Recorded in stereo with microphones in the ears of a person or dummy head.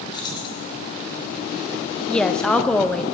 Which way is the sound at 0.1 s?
25° left (ahead or behind).